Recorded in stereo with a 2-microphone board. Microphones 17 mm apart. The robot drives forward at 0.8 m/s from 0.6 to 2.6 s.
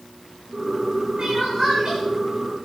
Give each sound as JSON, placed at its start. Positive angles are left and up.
{"t": 1.2, "sound": "crying", "side_deg": -55, "distance_m": 9.5}